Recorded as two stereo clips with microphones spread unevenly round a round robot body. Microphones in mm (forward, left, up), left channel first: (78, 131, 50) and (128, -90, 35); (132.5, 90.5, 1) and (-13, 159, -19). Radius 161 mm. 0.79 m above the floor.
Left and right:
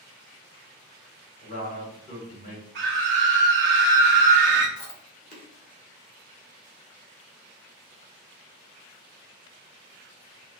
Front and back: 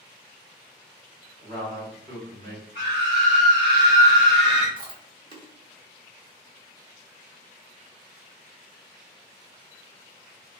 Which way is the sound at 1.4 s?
165° left.